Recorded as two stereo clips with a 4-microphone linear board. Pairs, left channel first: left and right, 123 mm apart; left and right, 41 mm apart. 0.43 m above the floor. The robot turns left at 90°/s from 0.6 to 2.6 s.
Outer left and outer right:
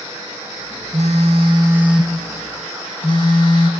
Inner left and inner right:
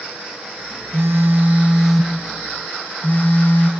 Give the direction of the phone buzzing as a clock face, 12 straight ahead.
3 o'clock.